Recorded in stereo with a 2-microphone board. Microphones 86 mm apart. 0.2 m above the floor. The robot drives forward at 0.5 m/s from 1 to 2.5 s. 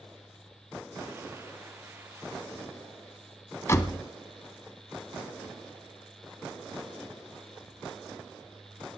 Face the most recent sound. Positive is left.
turn(degrees=35)  # may be behind; listen again after turning